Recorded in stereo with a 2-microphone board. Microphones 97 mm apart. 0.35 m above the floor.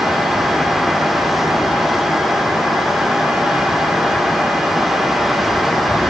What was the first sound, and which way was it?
Only background noise.